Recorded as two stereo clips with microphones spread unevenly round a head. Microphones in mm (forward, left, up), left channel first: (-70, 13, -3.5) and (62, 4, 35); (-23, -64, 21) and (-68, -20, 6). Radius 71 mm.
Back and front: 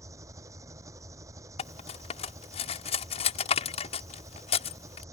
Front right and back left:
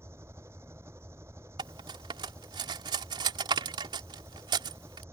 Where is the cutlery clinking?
125° left.